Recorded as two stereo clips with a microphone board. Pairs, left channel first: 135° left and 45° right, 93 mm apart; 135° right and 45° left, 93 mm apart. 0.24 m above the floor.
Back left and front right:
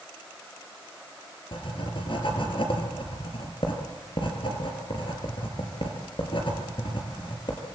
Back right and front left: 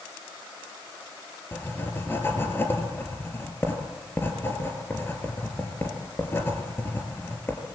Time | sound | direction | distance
1.5 | writing | 160° left | 4 m